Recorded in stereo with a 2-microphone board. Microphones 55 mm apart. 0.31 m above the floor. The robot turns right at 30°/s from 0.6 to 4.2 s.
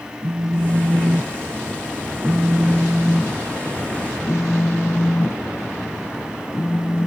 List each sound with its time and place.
0.2 s a phone buzzing: 80° right; by 7.1 s 30° left